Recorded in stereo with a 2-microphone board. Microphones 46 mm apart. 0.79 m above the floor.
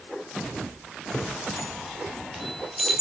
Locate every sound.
1.1 s a chime: 10° right (ahead or behind), 3.5 m